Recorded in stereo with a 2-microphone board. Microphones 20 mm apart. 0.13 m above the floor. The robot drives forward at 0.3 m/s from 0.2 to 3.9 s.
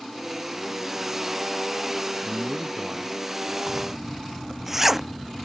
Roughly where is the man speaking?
Right.